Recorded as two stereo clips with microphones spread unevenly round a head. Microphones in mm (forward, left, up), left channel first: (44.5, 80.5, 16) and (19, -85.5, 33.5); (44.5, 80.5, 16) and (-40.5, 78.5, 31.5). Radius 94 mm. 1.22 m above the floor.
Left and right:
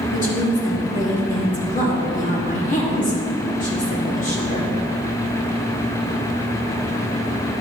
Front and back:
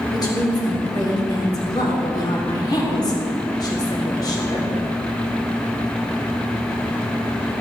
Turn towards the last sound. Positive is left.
turn(degrees=40)